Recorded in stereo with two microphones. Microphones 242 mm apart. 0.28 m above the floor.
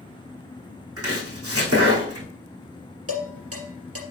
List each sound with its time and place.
1.0 s chopping: 80° right, 4 m
3.1 s dishes clattering: 75° right (ahead or behind), 3.5 m